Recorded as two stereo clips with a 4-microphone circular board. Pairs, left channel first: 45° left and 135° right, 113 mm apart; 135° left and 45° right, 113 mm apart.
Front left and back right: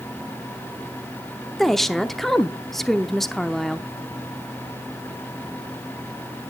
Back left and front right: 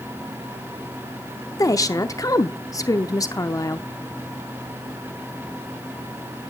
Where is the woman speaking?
130° left, 0.8 m.